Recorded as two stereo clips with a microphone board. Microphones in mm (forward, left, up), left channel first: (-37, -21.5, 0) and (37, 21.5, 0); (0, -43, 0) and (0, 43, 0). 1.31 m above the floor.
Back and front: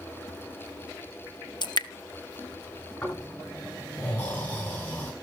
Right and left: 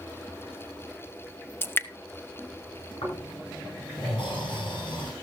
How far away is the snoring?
About 9.5 m.